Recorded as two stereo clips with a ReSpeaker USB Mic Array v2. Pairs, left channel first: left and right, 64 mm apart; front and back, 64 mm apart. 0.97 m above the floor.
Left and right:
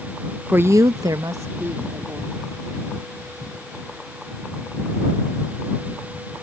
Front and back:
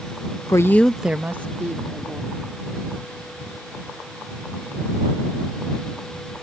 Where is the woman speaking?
25° right; by 2.4 s 140° right.